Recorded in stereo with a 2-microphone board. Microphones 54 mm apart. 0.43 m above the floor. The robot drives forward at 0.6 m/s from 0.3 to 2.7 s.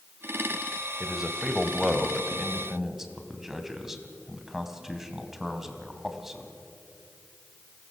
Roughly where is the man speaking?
Centre.